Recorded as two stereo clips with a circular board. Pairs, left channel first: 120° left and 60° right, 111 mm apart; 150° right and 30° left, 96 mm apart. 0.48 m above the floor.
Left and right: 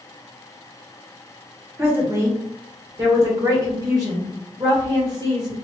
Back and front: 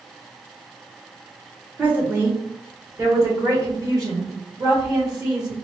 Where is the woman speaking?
25° right, 1.3 m; by 5.5 s 15° right, 3 m.